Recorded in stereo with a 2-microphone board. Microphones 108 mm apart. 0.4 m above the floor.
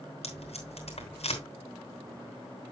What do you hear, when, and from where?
0.2 s tape being pulled: 70° left (ahead or behind), 3 m